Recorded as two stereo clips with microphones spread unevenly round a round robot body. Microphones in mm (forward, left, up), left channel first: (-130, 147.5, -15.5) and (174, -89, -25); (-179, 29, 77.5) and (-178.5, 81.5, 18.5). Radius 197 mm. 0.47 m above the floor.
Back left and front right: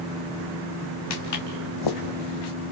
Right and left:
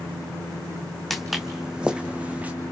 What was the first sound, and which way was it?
Footsteps, 165° right.